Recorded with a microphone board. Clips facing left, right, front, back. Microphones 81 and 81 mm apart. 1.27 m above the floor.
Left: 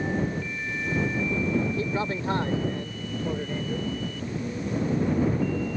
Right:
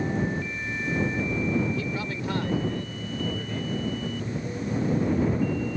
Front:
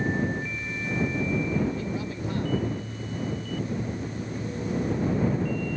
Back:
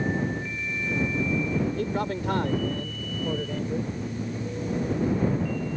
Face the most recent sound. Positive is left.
turn(degrees=160)